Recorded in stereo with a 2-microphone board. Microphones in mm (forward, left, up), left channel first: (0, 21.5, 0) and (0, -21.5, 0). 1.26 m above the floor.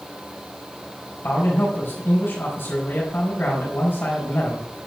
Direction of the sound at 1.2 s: 70° left (ahead or behind).